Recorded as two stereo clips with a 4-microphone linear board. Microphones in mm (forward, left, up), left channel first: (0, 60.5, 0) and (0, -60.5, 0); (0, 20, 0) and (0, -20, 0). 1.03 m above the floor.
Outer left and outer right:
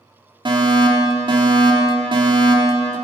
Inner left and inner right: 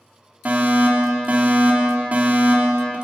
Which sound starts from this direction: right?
A fire alarm, at 0.5 s.